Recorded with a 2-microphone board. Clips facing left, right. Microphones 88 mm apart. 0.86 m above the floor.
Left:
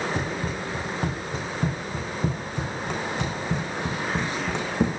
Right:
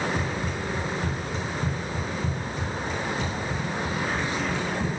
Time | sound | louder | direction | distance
0.1 | running footsteps | even | 50° left (ahead or behind) | 3.5 m